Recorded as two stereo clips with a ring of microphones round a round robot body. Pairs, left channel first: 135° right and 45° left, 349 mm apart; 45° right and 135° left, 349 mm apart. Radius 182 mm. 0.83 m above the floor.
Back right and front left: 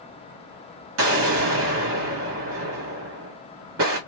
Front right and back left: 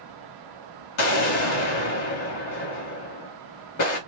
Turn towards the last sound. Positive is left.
turn(degrees=-5)